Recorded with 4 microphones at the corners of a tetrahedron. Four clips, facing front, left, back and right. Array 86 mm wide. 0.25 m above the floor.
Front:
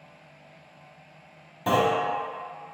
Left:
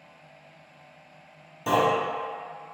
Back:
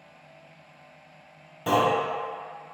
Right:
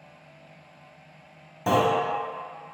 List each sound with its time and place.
1.7 s a clunk: 65° right, 1.0 m